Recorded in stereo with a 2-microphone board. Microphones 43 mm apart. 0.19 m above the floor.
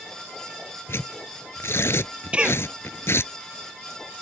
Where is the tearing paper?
75° left (ahead or behind).